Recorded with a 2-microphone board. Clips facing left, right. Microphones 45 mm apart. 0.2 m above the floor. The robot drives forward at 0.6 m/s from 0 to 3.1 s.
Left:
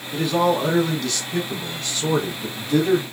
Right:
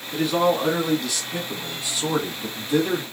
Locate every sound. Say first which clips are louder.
0.1 s a man speaking: left 1 dB; 5° right (ahead or behind), 1.7 m; by 3.0 s 10° right (ahead or behind), 1.0 m